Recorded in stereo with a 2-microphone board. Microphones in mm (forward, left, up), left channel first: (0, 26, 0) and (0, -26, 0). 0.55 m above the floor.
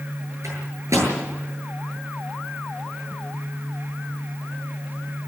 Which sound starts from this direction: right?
A microwave, at 0.4 s.